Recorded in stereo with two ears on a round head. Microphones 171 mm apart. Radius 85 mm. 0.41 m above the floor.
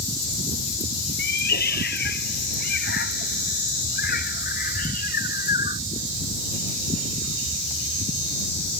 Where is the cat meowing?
60° left (ahead or behind); by 5.8 s 50° left (ahead or behind).